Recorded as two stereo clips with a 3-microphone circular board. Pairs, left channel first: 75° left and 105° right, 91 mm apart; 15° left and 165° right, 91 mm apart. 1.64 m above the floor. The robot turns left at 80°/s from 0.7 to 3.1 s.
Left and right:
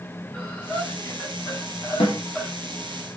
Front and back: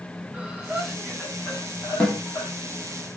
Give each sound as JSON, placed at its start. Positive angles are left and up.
{"t": 0.3, "sound": "breathing", "azimuth_deg": 135, "distance_m": 1.2}
{"t": 2.0, "sound": "a snare drum", "azimuth_deg": 95, "distance_m": 1.1}